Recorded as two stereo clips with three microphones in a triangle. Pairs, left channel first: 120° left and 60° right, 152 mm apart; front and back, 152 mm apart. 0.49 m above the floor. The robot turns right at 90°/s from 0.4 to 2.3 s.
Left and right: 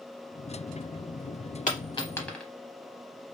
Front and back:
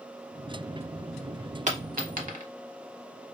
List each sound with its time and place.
1.7 s a dropped coin: 145° left, 0.7 m; by 2.5 s 155° right, 0.7 m